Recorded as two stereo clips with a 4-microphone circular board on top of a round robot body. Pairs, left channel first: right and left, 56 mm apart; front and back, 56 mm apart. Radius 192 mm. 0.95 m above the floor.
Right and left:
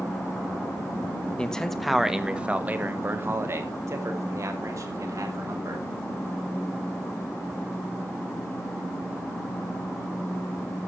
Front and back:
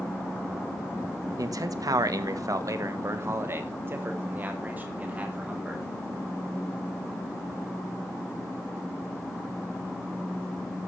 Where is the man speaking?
165° right, 1.7 m; by 5.8 s 110° left, 4 m.